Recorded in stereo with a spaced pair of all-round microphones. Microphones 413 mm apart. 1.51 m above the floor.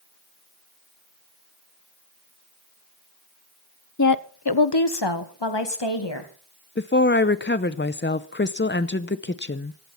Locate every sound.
4.0 s a woman speaking: 40° left (ahead or behind), 0.9 m; by 6.3 s 85° left, 2.5 m
6.8 s a woman speaking: 25° left (ahead or behind), 0.6 m